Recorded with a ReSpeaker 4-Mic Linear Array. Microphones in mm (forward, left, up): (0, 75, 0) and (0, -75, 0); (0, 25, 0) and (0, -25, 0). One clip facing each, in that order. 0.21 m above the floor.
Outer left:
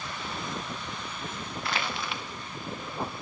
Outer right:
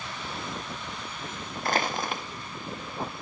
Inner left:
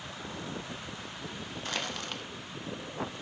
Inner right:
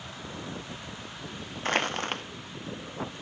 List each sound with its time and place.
1.6 s crushing: 40° right (ahead or behind), 0.6 m